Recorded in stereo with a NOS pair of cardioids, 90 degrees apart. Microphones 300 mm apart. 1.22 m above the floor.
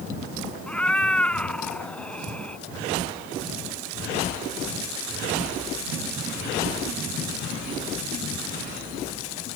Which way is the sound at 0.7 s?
5° left.